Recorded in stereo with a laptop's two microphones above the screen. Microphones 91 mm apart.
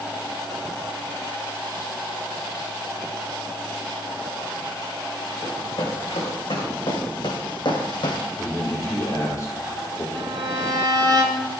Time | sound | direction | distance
5.4 | running footsteps | 65° left (ahead or behind) | 4.5 m
8.4 | a man speaking | 40° left (ahead or behind) | 3.5 m
10.2 | a violin | 50° right (ahead or behind) | 1.5 m